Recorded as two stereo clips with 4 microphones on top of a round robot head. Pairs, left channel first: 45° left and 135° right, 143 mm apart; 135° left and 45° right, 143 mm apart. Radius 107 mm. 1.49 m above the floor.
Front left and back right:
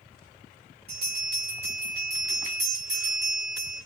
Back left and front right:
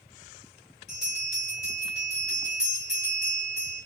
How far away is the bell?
About 1.3 m.